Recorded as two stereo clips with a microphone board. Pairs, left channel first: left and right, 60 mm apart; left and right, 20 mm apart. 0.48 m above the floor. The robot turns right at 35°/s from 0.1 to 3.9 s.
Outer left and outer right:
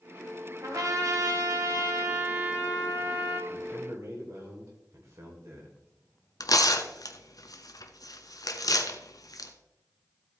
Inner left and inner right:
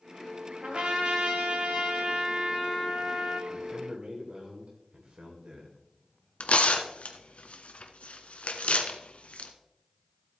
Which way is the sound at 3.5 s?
55° right (ahead or behind).